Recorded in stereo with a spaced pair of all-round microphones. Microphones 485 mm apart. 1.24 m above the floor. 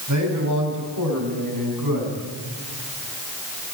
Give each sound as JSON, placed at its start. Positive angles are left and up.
{"t": 0.1, "sound": "a man speaking", "side_deg": -35, "distance_m": 8.0}